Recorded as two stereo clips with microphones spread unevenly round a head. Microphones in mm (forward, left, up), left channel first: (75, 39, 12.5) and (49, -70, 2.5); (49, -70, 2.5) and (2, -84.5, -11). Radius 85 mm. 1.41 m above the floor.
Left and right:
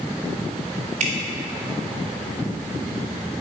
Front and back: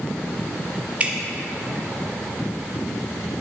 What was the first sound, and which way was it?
Dripping, 95° right.